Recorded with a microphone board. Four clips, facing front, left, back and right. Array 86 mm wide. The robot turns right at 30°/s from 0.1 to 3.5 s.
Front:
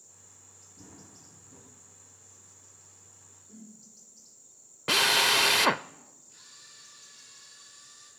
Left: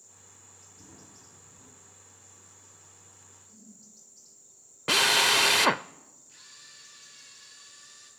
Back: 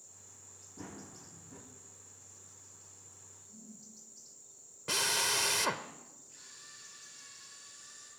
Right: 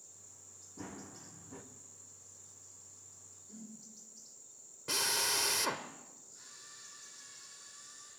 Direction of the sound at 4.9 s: 55° left.